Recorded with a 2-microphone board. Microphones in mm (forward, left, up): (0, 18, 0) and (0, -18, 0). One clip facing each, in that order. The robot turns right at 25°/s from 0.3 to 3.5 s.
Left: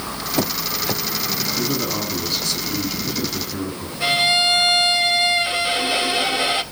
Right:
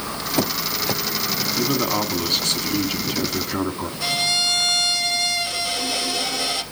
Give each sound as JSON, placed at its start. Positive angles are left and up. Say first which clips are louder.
{"t": 1.6, "sound": "a man speaking", "louder": "right 4 dB", "azimuth_deg": -135, "distance_m": 2.5}
{"t": 4.0, "sound": "a violin", "louder": "left 5 dB", "side_deg": 35, "distance_m": 1.6}